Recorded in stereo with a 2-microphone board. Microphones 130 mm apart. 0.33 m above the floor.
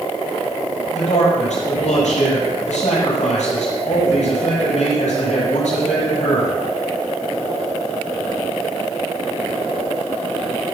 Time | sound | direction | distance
0.9 | a man speaking | 70° left (ahead or behind) | 9.5 m